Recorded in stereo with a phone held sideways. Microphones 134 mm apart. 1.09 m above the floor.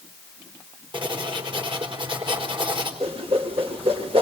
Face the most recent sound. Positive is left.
turn(degrees=-45)  # may be behind; listen again after turning